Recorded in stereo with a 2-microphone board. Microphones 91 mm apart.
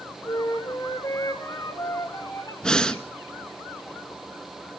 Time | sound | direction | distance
0.2 | a flute | 45° left (ahead or behind) | 3 m
2.6 | breathing | 10° left (ahead or behind) | 0.8 m